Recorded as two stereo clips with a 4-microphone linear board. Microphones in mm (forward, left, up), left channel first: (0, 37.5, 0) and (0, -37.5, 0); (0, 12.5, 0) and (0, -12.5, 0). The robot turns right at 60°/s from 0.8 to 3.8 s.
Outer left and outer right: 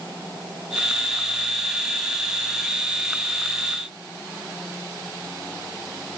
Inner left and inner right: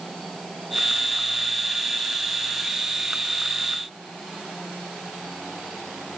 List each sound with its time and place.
Only background noise.